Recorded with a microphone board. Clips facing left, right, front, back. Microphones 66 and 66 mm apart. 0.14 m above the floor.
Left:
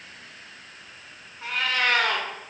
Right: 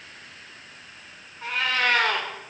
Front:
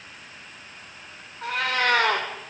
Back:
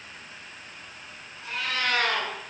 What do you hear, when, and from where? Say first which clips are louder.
1.4 s a cat meowing: right 1 dB, front 6 dB; 5° left, 7.5 m